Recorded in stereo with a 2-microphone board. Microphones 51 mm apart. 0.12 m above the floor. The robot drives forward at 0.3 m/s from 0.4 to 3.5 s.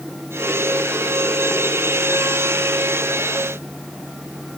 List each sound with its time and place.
Only background noise.